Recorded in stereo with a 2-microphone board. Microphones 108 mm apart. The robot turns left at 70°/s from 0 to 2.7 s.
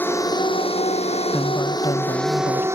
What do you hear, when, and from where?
0.0 s a drone: 165° left; by 2.8 s 25° right
1.3 s a woman speaking: 175° left; by 2.7 s 80° left